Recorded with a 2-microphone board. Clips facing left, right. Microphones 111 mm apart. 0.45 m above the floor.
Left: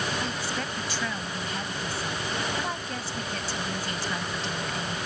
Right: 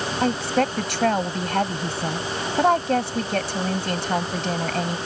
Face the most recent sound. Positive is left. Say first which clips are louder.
# right 11 dB
turn(degrees=-65)  # may be behind; listen again after turning